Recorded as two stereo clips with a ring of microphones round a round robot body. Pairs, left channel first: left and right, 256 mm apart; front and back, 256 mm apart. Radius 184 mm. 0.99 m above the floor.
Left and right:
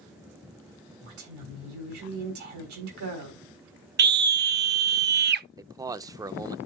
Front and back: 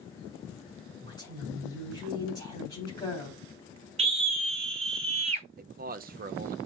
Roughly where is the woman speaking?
Right.